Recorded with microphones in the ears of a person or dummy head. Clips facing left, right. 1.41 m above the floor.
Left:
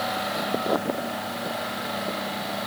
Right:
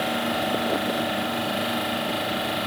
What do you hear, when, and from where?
Only background noise.